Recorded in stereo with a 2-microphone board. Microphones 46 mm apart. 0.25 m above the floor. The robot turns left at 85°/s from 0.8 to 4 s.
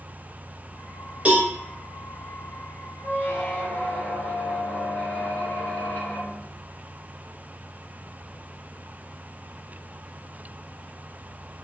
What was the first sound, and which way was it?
A cowbell, 30° right (ahead or behind).